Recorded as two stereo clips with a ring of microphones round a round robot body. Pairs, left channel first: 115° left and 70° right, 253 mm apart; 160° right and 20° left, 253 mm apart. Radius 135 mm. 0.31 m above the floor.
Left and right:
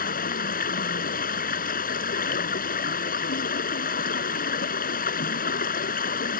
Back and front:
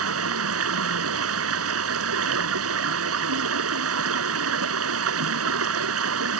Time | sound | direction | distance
0.0 | running water | 55° left | ?